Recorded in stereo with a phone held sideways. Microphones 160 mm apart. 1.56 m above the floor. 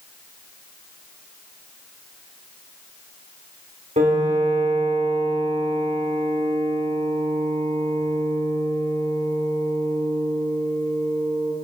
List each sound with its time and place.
4.0 s a piano: 55° right (ahead or behind), 2.5 m